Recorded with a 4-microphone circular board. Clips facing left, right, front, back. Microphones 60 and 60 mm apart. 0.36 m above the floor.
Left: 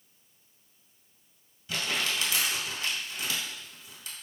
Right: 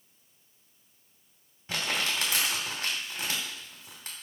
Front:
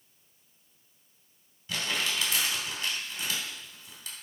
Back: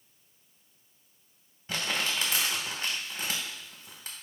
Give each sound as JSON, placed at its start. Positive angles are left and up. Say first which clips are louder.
{"t": 1.7, "sound": "crumpling", "louder": "even, even", "azimuth_deg": -135, "distance_m": 2.5}